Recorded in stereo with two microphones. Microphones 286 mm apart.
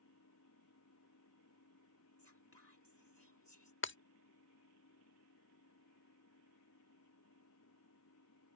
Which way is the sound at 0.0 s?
75° left (ahead or behind).